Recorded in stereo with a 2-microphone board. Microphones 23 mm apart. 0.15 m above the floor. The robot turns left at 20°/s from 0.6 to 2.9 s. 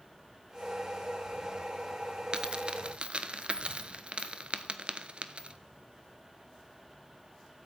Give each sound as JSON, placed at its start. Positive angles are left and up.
{"t": 2.3, "sound": "a dropped coin", "side_deg": -40, "distance_m": 0.6}